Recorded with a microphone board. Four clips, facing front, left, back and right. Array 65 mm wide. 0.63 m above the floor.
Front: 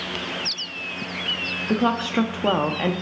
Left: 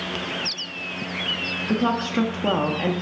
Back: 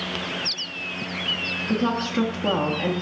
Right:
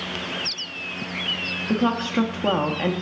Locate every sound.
1.7 s a woman speaking: 10° right, 0.5 m